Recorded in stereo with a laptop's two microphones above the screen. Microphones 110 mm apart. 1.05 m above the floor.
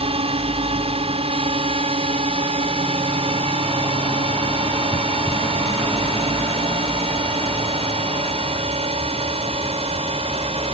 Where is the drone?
60° right (ahead or behind).